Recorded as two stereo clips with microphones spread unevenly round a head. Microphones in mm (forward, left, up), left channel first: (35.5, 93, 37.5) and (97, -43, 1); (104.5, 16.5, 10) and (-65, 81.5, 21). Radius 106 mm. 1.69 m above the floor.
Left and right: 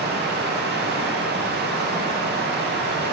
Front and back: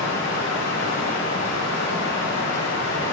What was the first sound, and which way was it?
Running water, 55° right.